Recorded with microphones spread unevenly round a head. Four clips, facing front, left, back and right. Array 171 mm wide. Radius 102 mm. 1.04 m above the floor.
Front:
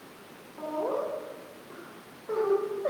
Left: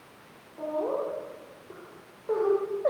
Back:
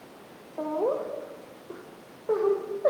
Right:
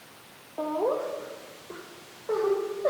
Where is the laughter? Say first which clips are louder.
Right 2 dB, back 3 dB; 155° right, 3 m; by 2.9 s 170° left, 5 m.